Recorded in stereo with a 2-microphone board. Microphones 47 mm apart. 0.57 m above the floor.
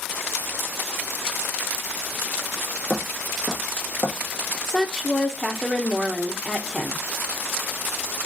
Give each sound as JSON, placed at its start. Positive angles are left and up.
{"t": 2.9, "sound": "footsteps", "side_deg": -5, "distance_m": 1.6}
{"t": 4.7, "sound": "a woman speaking", "side_deg": 10, "distance_m": 0.6}